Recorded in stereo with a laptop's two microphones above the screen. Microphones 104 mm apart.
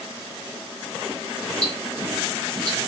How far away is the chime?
I don't hear a chime.